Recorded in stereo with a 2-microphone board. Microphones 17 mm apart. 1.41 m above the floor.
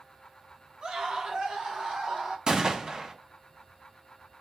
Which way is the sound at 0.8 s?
60° right (ahead or behind).